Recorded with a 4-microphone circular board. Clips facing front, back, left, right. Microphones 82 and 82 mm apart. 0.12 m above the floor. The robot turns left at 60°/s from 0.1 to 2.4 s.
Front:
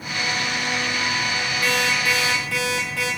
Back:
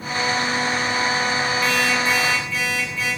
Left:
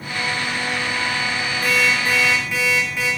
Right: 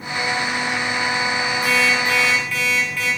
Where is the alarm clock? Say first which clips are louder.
Front 1 dB, left 1 dB; 60° left, 7 m; by 3.1 s 15° left, 7 m.